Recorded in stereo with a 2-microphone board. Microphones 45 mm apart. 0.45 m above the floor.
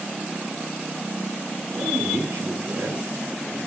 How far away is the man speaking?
About 5 m.